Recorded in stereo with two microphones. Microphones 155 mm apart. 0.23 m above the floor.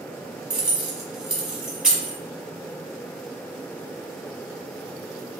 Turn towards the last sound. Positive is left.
turn(degrees=-5)  # may be behind; listen again after turning